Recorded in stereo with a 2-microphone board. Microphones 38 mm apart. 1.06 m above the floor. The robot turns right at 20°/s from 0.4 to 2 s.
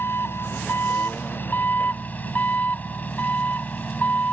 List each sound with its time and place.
0.0 s an engine running: 100° left; by 4.3 s 130° left